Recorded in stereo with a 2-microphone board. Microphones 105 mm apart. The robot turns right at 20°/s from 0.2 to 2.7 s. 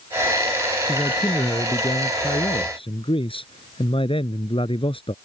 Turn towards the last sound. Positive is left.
turn(degrees=65)